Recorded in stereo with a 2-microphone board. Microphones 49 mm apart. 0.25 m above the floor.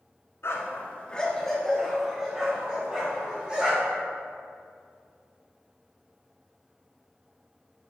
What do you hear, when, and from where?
0.4 s a dog barking: 60° left (ahead or behind), 1.1 m; by 4.0 s 20° right (ahead or behind), 5 m